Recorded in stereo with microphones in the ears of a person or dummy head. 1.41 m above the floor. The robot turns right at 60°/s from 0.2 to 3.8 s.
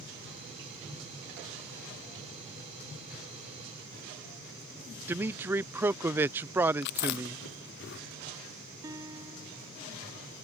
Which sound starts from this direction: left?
Chewing, at 6.8 s.